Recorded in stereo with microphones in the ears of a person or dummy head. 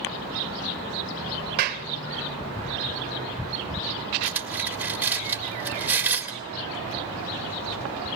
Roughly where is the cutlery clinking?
Centre.